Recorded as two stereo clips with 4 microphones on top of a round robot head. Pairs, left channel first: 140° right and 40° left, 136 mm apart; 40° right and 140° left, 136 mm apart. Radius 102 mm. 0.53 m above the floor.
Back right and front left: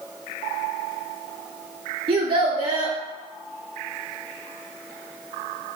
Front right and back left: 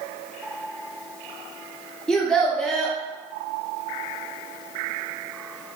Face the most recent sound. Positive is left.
turn(degrees=45)